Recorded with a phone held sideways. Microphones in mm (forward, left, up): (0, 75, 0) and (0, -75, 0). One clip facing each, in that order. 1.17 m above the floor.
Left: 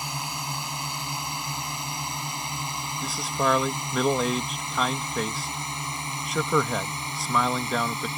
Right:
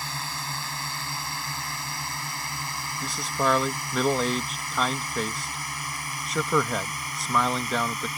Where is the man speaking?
Centre (ahead or behind).